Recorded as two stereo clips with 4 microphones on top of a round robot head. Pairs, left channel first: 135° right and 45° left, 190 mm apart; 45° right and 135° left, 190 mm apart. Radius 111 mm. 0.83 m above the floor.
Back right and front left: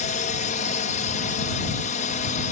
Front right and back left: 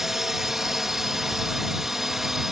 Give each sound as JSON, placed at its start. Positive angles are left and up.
{"t": 0.0, "sound": "a drone", "azimuth_deg": -140}